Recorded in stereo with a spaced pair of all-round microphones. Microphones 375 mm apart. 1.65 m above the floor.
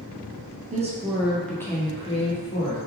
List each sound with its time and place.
0.7 s a woman speaking: 20° right (ahead or behind), 0.5 m; by 2.8 s 20° left (ahead or behind), 1.1 m